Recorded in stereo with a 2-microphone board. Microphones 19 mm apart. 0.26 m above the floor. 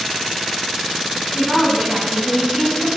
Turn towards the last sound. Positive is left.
turn(degrees=-45)  # may be behind; listen again after turning